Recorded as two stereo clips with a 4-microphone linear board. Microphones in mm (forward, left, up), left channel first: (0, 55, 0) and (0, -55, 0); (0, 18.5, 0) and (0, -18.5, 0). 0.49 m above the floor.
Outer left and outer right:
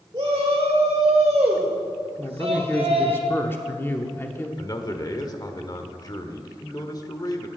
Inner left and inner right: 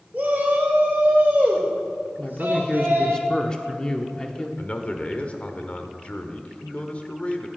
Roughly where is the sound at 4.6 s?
Left.